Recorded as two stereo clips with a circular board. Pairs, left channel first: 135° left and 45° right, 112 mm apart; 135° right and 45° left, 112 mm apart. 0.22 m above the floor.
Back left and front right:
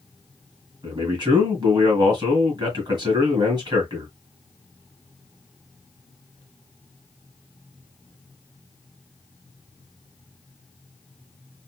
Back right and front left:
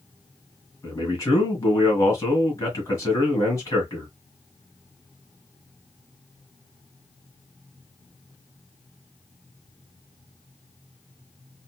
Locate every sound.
0.8 s a man speaking: 85° right, 2.5 m